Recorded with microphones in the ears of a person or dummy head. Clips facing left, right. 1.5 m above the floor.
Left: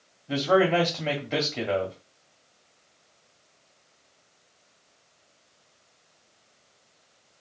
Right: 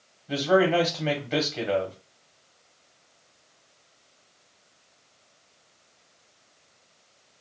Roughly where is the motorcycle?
No motorcycle in this recording.